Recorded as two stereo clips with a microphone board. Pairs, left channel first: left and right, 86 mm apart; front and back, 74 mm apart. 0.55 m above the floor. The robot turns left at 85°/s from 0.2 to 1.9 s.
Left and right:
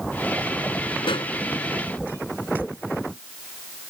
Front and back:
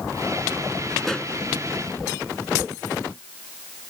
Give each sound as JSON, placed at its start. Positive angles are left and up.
{"t": 1.0, "sound": "a pop", "azimuth_deg": 90}